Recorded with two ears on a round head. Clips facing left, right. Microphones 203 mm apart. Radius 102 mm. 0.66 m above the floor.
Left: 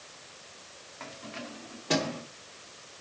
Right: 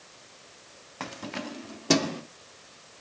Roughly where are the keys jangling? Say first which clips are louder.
Right 6 dB; right.